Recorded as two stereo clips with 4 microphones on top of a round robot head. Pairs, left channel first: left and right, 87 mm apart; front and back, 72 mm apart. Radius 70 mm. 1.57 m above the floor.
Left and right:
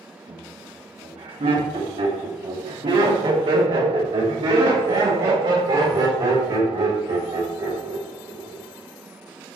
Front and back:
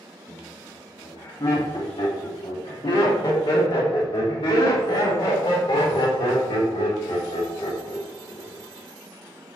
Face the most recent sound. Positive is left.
turn(degrees=-30)